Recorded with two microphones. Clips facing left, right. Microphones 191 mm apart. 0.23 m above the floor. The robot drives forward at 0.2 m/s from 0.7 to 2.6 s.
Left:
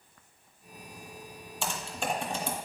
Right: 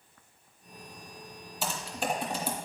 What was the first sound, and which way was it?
Typing on a keyboard, 5° right (ahead or behind).